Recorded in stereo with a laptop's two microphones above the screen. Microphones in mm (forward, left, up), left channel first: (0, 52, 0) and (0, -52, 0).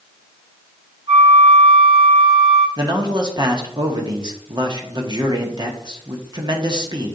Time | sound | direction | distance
1.1 | a flute | 75° right (ahead or behind) | 5 m
2.8 | a man speaking | 45° right (ahead or behind) | 1.2 m